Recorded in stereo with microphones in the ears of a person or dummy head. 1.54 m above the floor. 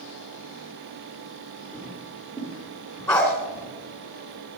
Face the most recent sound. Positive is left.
turn(degrees=5)  # may be behind; listen again after turning